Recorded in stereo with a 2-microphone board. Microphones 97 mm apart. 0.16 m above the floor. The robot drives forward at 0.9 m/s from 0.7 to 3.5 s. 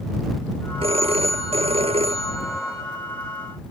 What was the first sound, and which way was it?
A phone ringing, 80° right.